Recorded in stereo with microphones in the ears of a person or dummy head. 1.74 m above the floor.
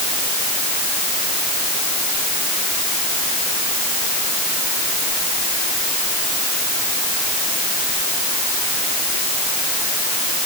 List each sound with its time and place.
Only background noise.